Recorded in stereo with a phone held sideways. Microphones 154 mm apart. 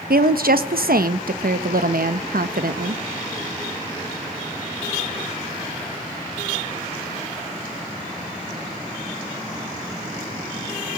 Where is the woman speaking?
85° right, 1.3 m.